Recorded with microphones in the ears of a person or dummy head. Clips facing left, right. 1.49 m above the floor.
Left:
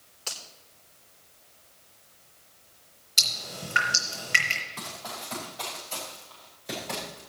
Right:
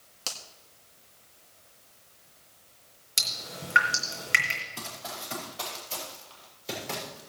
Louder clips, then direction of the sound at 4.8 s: Even; 25° right (ahead or behind).